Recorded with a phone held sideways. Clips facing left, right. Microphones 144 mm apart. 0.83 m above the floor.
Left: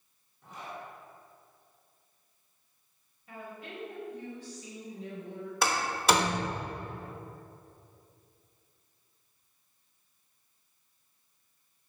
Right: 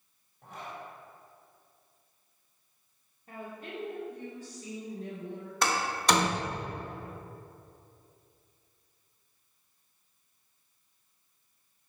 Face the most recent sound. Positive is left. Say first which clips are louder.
# even
turn(degrees=5)  # may be behind; listen again after turning